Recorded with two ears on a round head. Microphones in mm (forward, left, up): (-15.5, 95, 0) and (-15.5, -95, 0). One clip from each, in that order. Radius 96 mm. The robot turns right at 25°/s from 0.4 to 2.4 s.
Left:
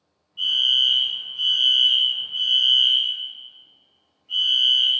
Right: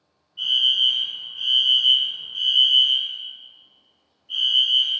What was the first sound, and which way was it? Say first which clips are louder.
A fire alarm: even; 10° left (ahead or behind).